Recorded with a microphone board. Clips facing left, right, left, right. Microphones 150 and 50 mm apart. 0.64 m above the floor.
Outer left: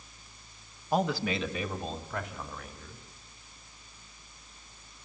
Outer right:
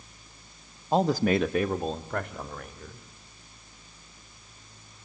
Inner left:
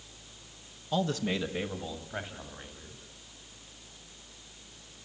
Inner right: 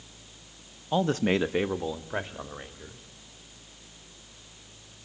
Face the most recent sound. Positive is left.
turn(degrees=-55)  # may be behind; listen again after turning